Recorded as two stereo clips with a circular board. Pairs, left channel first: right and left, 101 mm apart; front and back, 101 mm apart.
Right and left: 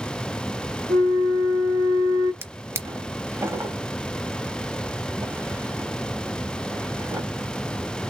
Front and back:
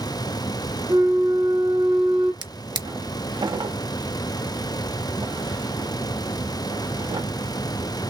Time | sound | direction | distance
0.9 | a flute | 160° right | 3 m
2.4 | a drawer | 150° left | 0.9 m